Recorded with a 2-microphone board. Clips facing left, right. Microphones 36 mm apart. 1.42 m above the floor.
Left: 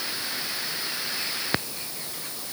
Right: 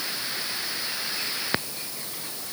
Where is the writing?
I don't hear writing.